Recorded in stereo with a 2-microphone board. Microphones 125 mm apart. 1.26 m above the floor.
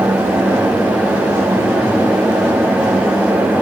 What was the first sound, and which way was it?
Only background noise.